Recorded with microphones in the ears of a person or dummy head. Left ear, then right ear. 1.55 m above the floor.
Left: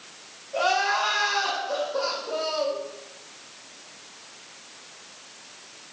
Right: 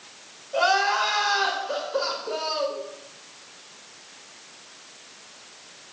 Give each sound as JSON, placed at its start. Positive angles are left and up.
{"t": 0.5, "sound": "crying", "side_deg": -65, "distance_m": 3.5}